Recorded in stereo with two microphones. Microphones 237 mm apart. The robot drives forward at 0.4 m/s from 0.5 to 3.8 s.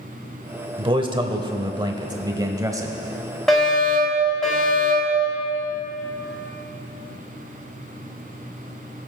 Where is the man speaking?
20° right (ahead or behind), 0.9 m; by 3.0 s 15° right (ahead or behind), 1.3 m.